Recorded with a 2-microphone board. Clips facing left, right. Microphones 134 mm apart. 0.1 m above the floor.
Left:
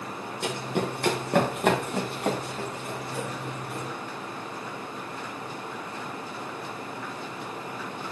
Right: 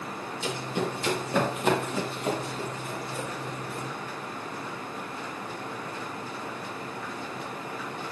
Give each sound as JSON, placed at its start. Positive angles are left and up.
{"t": 0.4, "sound": "running footsteps", "side_deg": 65, "distance_m": 1.8}